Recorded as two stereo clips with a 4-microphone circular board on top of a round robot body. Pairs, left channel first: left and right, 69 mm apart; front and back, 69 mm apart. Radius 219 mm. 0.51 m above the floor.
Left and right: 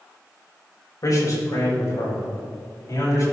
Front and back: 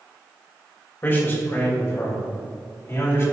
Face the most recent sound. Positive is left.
turn(degrees=50)